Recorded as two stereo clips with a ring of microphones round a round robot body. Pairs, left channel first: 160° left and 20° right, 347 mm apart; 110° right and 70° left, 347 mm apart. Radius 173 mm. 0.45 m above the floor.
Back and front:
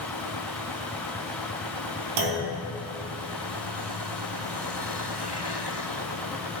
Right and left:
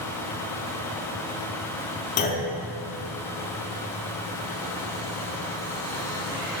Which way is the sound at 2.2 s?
50° right.